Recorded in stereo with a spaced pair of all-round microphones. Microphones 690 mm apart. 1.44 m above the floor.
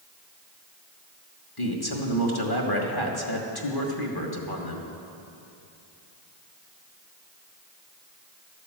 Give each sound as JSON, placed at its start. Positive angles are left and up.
{"t": 1.6, "sound": "a man speaking", "side_deg": 30, "distance_m": 1.5}